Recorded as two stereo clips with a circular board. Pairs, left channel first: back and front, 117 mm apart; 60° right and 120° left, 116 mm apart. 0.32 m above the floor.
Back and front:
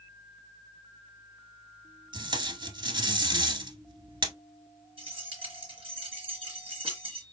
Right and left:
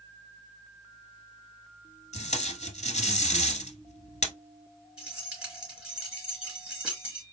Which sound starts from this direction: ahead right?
Tape being pulled, at 2.1 s.